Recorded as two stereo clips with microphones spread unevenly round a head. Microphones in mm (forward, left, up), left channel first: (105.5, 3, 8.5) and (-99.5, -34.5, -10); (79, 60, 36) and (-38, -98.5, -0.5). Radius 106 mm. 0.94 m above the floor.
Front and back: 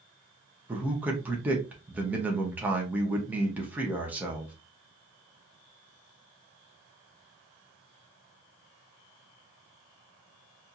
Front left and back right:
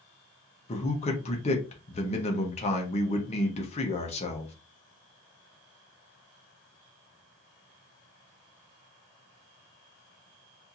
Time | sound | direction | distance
0.7 | a man speaking | 115° left | 1.0 m